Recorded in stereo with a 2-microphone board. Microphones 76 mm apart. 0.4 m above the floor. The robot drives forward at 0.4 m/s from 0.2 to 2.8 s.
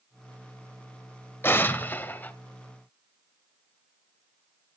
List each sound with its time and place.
1.4 s an explosion: 30° left (ahead or behind), 1.2 m; by 2.3 s 25° left (ahead or behind), 1.5 m